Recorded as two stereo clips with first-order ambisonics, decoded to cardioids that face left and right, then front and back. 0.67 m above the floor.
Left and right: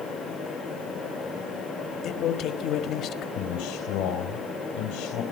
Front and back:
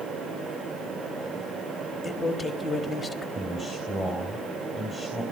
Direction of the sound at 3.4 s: 105° left.